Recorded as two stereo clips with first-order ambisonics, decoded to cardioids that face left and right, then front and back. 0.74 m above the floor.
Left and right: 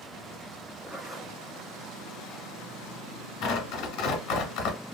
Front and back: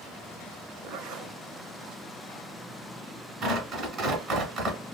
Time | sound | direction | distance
0.8 | a zipper | 175° right | 0.7 m
3.4 | tearing paper | 120° left | 1.5 m